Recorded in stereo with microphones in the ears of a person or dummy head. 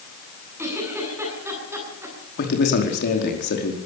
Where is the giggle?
15° right (ahead or behind), 9.5 m.